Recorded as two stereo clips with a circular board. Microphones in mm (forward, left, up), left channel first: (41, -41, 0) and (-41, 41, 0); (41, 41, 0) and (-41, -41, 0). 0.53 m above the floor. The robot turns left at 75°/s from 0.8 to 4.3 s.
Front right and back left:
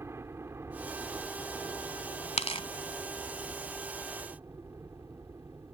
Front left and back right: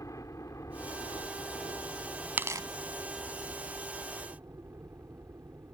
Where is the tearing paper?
60° right; by 2.7 s 85° right.